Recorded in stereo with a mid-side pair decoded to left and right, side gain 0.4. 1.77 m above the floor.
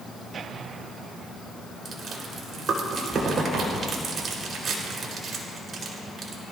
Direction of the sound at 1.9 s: 55° right.